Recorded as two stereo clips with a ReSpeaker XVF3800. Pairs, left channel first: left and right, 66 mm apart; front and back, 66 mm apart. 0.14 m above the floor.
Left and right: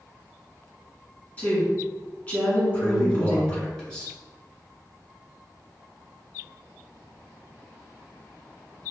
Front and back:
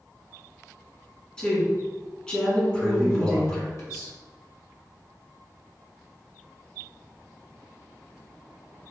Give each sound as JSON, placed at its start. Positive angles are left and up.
{"t": 1.4, "sound": "a woman speaking", "azimuth_deg": 65, "distance_m": 1.5}
{"t": 2.8, "sound": "a man speaking", "azimuth_deg": 15, "distance_m": 1.8}